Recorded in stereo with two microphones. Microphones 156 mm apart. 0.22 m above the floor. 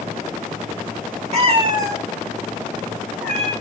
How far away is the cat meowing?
About 0.7 m.